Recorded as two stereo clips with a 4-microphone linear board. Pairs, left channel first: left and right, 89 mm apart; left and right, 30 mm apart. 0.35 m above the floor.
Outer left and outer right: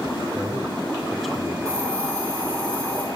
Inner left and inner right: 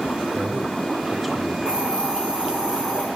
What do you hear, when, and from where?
0.3 s a man speaking: 25° right (ahead or behind), 1.1 m; by 1.6 s 10° left (ahead or behind), 1.0 m
1.6 s a hiss: 30° right (ahead or behind), 7 m